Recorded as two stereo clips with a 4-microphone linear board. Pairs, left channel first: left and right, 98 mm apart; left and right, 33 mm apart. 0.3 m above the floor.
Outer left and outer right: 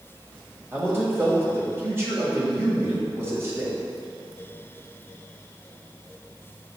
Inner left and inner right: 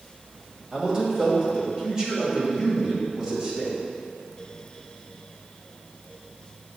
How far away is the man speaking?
About 1.6 m.